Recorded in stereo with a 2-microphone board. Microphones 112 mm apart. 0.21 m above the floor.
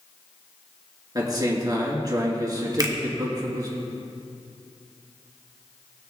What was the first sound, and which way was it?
A man speaking, 35° right (ahead or behind).